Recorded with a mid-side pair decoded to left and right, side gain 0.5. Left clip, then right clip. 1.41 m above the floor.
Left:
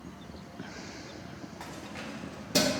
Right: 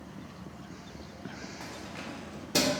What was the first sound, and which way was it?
Keys jangling, 5° left.